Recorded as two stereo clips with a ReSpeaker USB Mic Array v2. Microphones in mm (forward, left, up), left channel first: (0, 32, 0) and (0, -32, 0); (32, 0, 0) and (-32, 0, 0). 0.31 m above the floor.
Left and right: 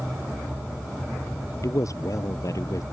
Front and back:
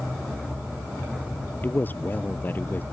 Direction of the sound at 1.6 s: 60° left.